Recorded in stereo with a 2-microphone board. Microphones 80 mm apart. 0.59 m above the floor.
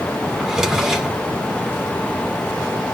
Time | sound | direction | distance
0.4 | a drawer | 5° right (ahead or behind) | 0.9 m